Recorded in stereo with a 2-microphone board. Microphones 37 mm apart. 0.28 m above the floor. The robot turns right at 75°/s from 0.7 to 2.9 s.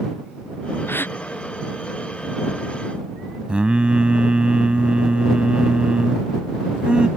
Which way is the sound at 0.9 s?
90° left.